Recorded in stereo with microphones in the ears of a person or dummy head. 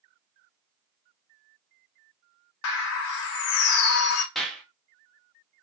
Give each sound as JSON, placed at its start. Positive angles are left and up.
{"t": 2.6, "sound": "a bird", "side_deg": 65, "distance_m": 0.6}
{"t": 4.3, "sound": "a clap", "side_deg": -5, "distance_m": 0.9}